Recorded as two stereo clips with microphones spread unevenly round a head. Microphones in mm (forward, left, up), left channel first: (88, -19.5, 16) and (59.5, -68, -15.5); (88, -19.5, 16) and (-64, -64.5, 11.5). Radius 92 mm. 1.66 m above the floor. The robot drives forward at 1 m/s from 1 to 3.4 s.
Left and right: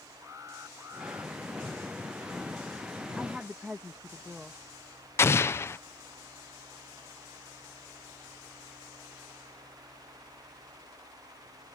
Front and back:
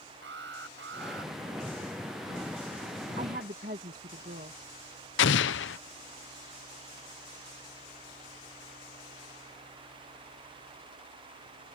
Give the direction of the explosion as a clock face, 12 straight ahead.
11 o'clock.